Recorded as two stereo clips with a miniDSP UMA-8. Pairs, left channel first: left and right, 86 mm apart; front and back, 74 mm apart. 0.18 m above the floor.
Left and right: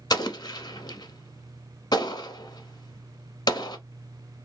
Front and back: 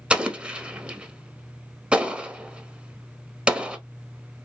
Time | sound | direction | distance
0.1 | an explosion | 110° left | 0.6 m